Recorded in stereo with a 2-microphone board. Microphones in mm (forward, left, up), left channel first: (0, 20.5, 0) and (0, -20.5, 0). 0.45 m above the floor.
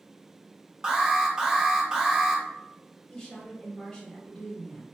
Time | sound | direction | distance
0.8 | an alarm | 15° right (ahead or behind) | 0.5 m
3.1 | a woman speaking | 15° left (ahead or behind) | 1.6 m